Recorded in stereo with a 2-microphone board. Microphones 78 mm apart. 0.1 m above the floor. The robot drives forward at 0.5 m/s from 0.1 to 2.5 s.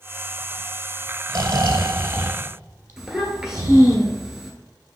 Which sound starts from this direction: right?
Snoring, at 1.3 s.